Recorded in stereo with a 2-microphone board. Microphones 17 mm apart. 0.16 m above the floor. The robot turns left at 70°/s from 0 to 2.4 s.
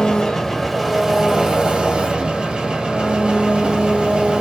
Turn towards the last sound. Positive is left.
turn(degrees=-115)